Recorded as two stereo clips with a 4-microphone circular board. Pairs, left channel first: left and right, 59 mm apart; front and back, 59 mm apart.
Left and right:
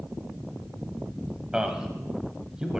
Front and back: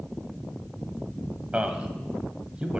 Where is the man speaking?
145° right, 1.0 m.